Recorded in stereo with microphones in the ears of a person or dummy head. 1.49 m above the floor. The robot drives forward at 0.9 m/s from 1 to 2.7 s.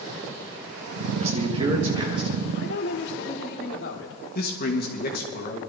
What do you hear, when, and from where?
1.2 s a man speaking: 40° right (ahead or behind), 1.7 m; by 2.3 s 25° right (ahead or behind), 2.5 m
2.5 s a woman speaking: 60° left (ahead or behind), 1.6 m; by 4.2 s 65° left (ahead or behind), 1.6 m
4.3 s a man speaking: 45° left (ahead or behind), 1.8 m